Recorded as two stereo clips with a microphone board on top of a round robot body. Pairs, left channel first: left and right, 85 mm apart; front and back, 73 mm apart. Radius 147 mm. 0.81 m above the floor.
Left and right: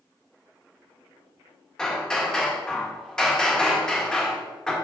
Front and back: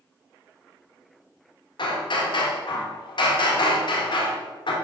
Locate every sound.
1.8 s hammering: 10° left, 1.5 m